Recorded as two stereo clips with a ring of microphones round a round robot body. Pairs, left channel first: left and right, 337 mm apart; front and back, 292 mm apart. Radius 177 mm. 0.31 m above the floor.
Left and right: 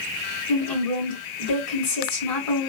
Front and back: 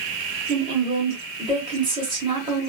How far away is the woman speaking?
About 1.8 m.